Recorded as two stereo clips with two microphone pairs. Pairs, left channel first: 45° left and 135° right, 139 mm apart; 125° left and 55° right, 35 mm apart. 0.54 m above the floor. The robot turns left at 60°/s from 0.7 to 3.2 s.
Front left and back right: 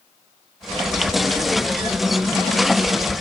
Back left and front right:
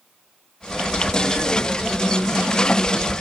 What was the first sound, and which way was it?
Only background noise.